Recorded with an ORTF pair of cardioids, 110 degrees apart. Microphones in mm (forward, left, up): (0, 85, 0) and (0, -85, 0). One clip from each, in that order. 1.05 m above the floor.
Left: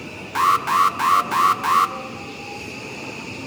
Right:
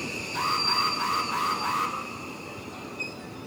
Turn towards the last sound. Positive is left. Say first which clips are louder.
# left 9 dB
turn(degrees=65)